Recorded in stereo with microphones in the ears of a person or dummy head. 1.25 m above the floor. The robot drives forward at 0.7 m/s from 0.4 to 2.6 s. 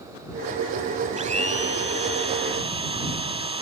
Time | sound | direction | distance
1.2 | a blender | 40° right (ahead or behind) | ?